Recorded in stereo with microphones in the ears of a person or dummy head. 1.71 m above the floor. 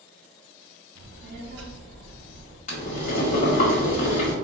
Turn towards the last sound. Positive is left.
turn(degrees=40)  # may be behind; listen again after turning